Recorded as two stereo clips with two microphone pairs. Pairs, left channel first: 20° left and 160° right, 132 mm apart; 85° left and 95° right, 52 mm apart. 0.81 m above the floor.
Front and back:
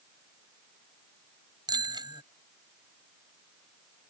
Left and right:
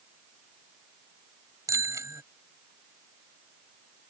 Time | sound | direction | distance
1.7 | a bicycle bell | 100° right | ?